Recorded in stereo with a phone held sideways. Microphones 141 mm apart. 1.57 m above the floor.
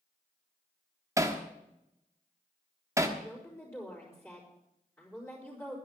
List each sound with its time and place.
1.2 s hammering: 20° right (ahead or behind), 1.3 m
3.2 s a woman speaking: 15° left (ahead or behind), 4.5 m